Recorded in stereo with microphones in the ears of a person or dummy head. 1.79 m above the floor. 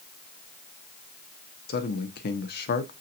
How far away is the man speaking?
About 0.9 m.